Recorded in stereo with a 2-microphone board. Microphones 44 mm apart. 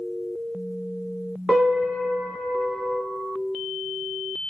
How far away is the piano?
About 1.0 m.